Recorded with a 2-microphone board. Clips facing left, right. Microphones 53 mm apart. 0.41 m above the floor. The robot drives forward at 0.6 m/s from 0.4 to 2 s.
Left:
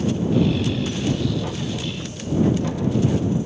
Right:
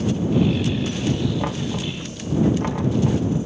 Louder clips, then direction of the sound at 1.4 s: Right 2 dB; 60° right (ahead or behind).